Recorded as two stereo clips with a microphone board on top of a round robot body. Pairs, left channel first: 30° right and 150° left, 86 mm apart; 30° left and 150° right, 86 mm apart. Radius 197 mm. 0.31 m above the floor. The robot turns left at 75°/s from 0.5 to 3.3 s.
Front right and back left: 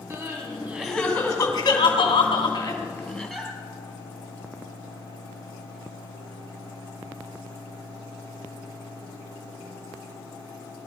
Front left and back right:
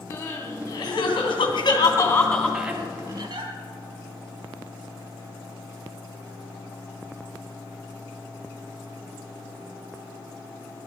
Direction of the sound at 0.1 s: 85° left.